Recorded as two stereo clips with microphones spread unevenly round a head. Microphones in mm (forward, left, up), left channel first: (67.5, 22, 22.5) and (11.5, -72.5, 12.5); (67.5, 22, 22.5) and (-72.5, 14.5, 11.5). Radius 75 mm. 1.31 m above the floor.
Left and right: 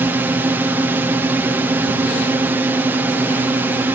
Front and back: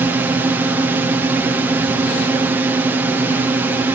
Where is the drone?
135° right.